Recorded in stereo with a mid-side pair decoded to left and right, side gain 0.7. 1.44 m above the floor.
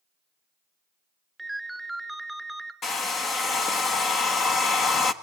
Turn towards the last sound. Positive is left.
turn(degrees=35)